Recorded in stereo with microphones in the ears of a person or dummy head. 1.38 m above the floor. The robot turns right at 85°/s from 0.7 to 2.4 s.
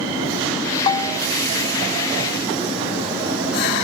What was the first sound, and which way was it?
A bell, 140° left.